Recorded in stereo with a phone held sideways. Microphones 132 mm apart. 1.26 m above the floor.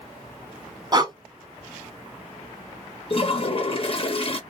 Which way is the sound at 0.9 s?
30° right (ahead or behind).